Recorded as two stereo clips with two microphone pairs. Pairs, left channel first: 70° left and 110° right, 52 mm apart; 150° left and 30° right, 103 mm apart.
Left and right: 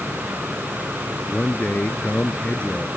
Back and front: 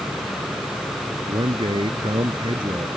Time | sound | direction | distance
1.3 | a man speaking | 5° left | ?